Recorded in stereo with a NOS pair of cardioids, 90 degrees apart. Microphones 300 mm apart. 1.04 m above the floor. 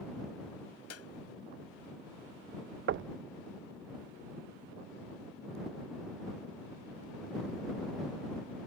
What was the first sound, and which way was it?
A clap, 55° left.